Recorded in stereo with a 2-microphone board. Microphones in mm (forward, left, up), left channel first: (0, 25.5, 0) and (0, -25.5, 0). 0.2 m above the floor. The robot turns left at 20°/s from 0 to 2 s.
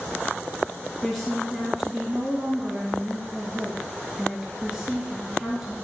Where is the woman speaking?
10° left (ahead or behind), 2.5 m; by 5.7 s 5° right (ahead or behind), 2.5 m.